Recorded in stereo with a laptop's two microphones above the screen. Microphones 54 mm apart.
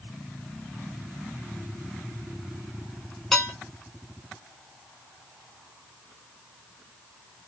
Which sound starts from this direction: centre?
Dishes clattering, at 3.3 s.